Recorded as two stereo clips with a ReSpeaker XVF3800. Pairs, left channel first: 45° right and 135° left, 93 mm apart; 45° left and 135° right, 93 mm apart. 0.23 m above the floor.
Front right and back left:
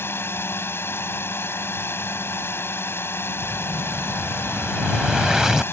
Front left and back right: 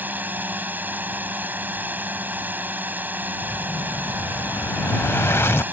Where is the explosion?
55° left.